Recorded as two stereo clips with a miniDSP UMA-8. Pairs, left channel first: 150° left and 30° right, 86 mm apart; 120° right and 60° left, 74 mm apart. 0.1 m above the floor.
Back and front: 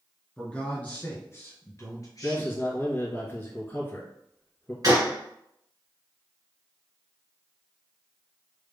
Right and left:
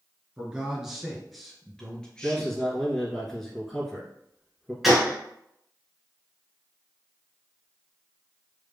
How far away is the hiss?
No hiss in this recording.